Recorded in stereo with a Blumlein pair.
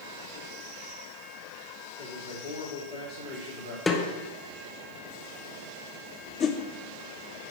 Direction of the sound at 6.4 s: 25° left.